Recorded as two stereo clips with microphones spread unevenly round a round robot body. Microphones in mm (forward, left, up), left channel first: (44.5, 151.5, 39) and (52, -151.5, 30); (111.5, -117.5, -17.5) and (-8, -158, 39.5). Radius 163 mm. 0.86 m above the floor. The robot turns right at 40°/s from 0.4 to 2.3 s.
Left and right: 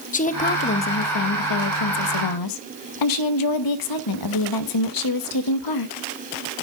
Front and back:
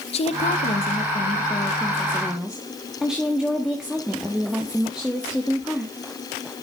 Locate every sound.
0.1 s a woman speaking: 25° left, 0.9 m; by 6.0 s 100° left, 0.9 m